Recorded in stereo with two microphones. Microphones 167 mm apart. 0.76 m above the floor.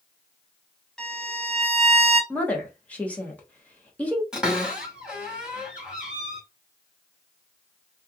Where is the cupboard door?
5° right (ahead or behind), 1.9 m.